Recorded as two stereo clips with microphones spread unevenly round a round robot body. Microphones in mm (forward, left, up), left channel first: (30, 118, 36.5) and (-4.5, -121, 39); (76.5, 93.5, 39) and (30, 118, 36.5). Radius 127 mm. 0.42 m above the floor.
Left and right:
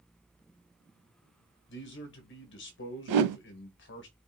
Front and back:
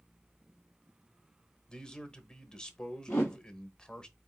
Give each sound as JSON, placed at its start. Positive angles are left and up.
{"t": 1.7, "sound": "a man speaking", "azimuth_deg": 50, "distance_m": 1.6}
{"t": 3.1, "sound": "a whoosh", "azimuth_deg": -100, "distance_m": 0.6}